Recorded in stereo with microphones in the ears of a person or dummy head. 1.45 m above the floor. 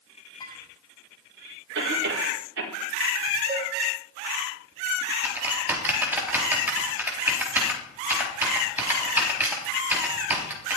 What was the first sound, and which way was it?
Dishes clattering, 20° left (ahead or behind).